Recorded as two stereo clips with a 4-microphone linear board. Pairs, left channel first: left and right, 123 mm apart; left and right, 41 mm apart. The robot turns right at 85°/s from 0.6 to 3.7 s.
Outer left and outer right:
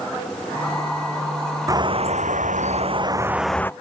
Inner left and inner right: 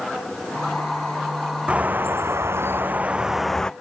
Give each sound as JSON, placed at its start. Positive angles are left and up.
{"t": 1.7, "sound": "a bird", "azimuth_deg": -155}